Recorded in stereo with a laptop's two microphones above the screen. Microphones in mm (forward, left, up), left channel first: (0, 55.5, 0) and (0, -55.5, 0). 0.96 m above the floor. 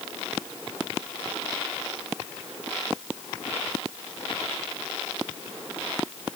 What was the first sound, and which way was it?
Only background noise.